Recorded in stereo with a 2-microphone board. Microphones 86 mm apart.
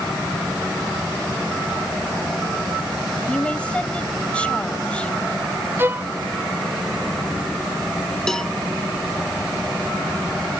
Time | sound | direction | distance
3.3 | a woman speaking | 15° left (ahead or behind) | ?
5.8 | a violin | 25° right (ahead or behind) | ?
8.3 | a cowbell | 5° left (ahead or behind) | ?